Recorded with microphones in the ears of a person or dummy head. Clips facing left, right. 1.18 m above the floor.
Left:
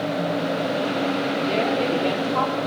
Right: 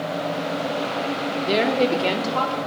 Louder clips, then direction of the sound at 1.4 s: Right 5 dB; 20° right (ahead or behind).